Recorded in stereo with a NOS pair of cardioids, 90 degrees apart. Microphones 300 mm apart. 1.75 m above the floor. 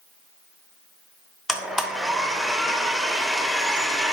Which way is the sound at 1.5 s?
Straight ahead.